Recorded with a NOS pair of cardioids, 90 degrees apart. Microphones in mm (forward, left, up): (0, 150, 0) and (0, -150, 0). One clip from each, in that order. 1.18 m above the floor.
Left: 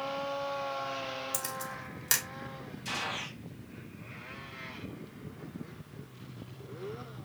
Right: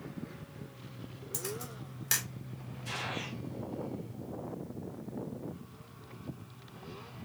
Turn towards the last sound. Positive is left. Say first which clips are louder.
# left 2 dB
turn(degrees=70)